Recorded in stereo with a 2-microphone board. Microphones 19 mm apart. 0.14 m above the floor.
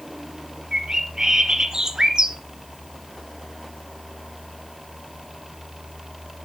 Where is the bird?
40° right (ahead or behind), 1.4 m.